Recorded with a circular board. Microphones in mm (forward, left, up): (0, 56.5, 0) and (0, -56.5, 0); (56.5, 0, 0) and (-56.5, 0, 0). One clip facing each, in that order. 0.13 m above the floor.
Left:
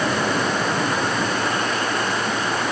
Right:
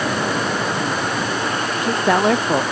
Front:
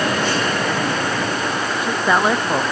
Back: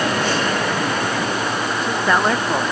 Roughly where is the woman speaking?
Right.